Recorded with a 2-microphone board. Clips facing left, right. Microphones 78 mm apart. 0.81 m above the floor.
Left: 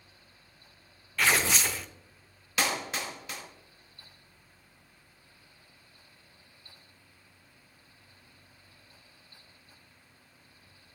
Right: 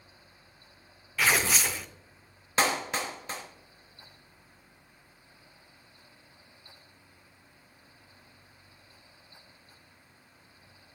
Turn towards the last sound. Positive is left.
turn(degrees=-30)  # may be behind; listen again after turning